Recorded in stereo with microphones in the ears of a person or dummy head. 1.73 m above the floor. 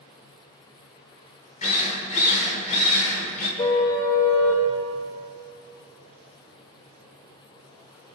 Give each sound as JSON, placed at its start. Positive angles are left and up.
{"t": 1.6, "sound": "a drill", "side_deg": 35, "distance_m": 4.5}
{"t": 3.6, "sound": "a car horn", "side_deg": 30, "distance_m": 3.0}